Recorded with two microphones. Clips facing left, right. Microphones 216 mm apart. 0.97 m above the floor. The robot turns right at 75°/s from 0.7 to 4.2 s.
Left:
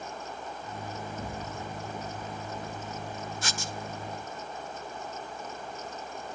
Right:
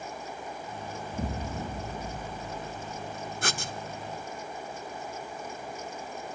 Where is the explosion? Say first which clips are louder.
Right 3 dB; 155° right, 0.7 m; by 3.2 s 5° left, 0.7 m.